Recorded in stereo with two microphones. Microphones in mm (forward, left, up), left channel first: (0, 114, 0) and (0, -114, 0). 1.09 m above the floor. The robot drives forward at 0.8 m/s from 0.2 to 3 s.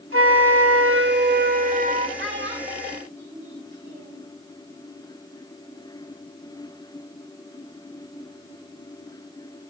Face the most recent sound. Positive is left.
turn(degrees=-40)  # may be behind; listen again after turning